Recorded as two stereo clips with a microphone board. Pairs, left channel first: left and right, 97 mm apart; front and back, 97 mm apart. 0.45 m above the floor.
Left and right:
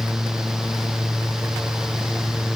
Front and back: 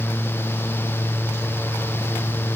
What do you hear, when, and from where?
Only background noise.